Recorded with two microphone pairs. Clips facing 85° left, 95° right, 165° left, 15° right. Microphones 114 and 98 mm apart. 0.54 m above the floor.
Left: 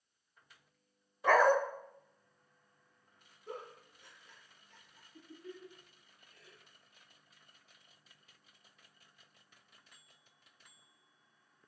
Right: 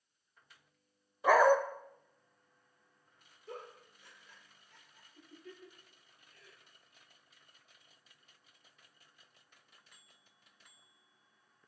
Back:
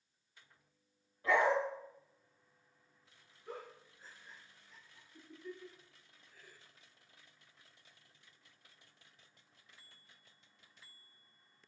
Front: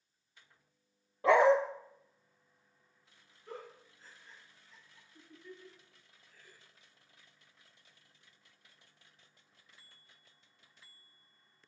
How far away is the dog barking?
About 0.8 m.